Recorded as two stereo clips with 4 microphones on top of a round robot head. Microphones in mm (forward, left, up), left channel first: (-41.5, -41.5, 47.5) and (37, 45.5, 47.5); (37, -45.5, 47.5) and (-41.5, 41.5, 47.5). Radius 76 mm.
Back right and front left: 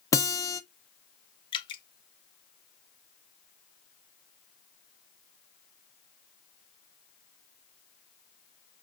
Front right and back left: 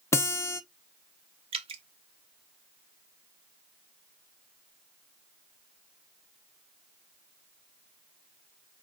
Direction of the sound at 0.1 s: 95° right.